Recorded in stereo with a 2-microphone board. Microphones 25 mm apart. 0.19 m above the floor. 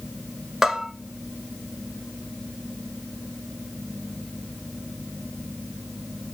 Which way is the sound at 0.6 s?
15° right (ahead or behind).